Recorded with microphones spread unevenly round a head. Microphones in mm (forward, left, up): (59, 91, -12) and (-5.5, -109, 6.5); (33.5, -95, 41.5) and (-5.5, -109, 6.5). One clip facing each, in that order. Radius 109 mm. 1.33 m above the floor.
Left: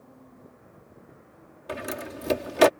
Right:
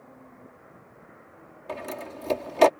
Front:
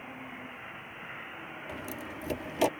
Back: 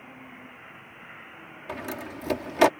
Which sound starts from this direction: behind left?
A door slam, at 1.7 s.